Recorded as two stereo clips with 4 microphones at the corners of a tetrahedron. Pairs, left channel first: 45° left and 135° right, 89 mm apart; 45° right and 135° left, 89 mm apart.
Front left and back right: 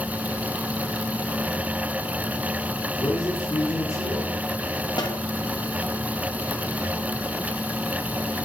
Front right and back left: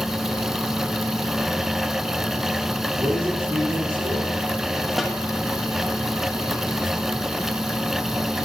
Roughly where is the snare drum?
Ahead left.